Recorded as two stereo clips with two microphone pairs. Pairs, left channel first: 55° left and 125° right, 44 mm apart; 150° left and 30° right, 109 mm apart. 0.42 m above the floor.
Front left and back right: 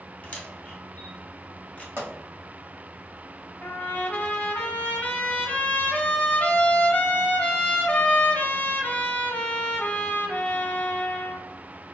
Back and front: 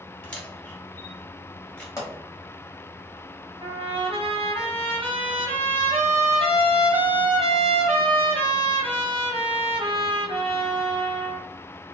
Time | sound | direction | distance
0.2 | a camera shutter | 80° left | 0.8 m
2.0 | a pop | 150° right | 1.3 m
3.6 | a trumpet | straight ahead | 0.6 m